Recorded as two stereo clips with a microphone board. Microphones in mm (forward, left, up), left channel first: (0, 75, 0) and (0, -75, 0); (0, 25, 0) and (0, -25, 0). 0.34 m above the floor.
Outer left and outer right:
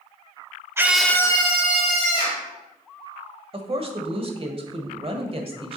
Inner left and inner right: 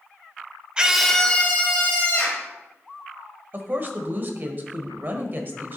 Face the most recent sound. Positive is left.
turn(degrees=-40)  # may be behind; listen again after turning